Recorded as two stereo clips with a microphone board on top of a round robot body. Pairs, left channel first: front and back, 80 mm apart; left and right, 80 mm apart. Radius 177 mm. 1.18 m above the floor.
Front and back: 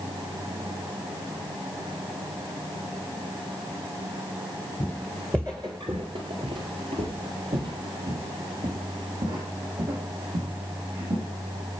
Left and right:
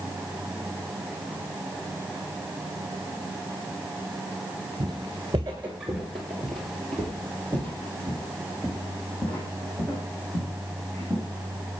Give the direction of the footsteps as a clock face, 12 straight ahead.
2 o'clock.